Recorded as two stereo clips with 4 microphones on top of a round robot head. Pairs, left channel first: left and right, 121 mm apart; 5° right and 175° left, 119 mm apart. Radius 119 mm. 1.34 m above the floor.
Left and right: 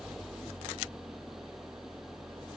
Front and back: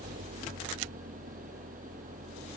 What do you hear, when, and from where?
0.0 s an engine running: straight behind